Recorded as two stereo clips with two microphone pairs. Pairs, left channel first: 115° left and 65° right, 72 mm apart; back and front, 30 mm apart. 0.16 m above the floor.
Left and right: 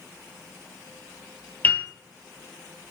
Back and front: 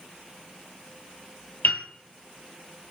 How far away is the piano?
About 0.7 m.